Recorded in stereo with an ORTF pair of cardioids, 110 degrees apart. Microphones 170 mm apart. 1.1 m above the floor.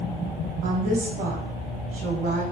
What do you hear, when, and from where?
0.6 s a woman speaking: 55° right, 0.7 m